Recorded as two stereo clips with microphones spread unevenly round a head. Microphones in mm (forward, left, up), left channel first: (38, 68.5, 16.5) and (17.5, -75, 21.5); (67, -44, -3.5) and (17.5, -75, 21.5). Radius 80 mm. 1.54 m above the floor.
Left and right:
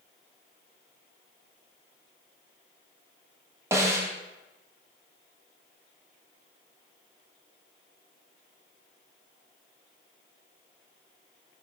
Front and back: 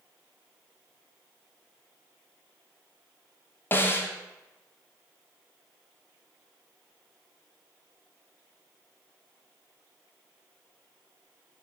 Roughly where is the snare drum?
Ahead right.